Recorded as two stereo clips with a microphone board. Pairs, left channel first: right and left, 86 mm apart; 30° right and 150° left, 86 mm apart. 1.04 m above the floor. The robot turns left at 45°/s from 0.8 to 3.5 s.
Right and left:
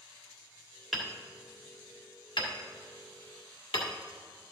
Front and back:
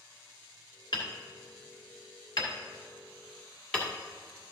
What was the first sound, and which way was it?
Hammering, 5° left.